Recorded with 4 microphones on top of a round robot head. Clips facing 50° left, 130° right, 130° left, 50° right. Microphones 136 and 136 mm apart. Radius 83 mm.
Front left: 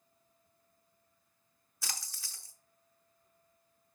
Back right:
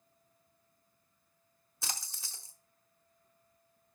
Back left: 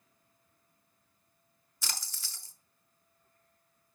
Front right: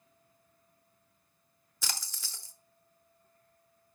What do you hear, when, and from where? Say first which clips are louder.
1.8 s a splash: back right 2 dB, front right 2 dB; 60° right, 1.2 m